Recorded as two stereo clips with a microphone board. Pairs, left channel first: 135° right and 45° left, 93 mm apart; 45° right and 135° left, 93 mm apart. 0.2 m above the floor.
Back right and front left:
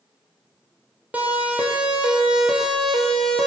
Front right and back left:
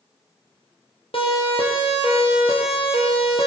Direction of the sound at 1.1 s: 30° right.